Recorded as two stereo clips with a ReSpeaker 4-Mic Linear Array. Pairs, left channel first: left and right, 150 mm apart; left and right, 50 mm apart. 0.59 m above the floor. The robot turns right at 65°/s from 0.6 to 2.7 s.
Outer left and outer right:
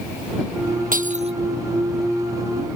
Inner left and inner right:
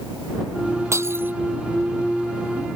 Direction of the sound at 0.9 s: 65° right (ahead or behind).